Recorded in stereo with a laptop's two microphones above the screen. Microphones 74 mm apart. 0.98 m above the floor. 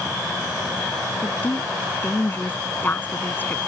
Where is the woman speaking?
25° left (ahead or behind).